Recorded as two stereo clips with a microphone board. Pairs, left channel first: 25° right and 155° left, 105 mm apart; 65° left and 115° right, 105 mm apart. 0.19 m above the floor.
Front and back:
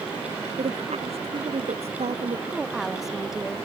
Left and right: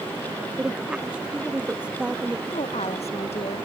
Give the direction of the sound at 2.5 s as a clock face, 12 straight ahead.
10 o'clock.